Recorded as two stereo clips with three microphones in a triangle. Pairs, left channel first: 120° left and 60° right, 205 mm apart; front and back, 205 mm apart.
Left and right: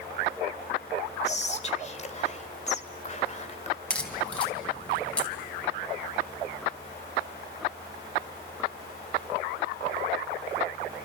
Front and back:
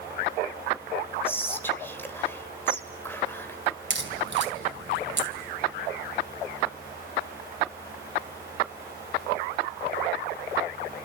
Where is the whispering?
75° left, 1.9 m.